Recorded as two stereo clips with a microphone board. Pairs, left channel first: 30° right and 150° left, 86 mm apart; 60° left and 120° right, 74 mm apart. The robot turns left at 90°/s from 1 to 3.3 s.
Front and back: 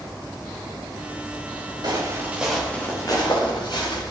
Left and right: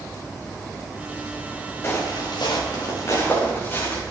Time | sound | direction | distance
1.8 | footsteps | 115° left | 3.5 m